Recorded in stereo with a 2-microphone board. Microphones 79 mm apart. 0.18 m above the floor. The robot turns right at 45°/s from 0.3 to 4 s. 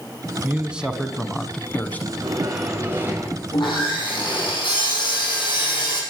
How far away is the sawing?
About 5.5 m.